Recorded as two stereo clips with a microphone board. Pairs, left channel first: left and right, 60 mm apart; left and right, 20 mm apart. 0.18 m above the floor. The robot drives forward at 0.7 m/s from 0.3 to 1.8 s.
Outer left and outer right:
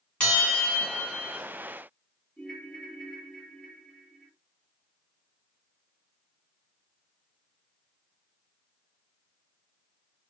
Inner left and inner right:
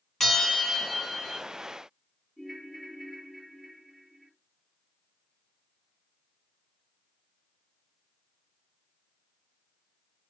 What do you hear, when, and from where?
0.2 s a bell: 15° left (ahead or behind), 2 m; by 1.4 s 10° left (ahead or behind), 2.5 m
2.4 s a ringtone: 10° left (ahead or behind), 2.5 m